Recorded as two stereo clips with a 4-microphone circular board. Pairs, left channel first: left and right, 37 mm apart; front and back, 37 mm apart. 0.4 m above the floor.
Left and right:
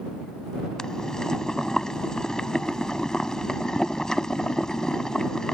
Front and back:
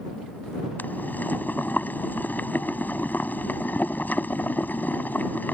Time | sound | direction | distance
0.8 | boiling | 20° left | ?